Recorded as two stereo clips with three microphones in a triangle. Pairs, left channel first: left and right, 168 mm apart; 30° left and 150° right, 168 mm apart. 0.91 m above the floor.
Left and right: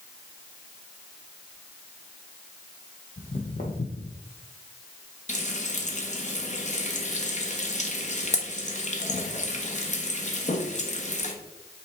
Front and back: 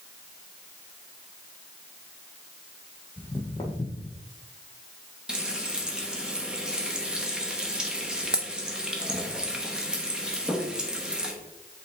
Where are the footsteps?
90° left, 2.5 m; by 4.2 s 80° left, 1.4 m.